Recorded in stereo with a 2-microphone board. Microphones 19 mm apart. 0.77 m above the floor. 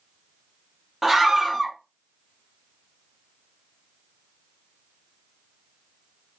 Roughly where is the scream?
Right.